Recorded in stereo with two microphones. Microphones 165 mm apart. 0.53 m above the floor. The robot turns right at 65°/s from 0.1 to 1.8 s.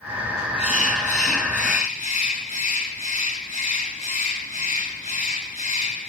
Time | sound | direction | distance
0.6 | a bird | 45° left | 1.1 m